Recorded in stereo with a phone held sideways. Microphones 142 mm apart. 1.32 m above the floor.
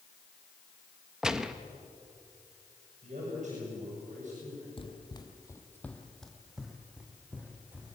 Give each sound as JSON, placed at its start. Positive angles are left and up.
{"t": 1.2, "sound": "a gunshot", "side_deg": -5, "distance_m": 1.0}
{"t": 3.0, "sound": "a man speaking", "side_deg": -55, "distance_m": 8.0}
{"t": 4.8, "sound": "running footsteps", "side_deg": 40, "distance_m": 1.6}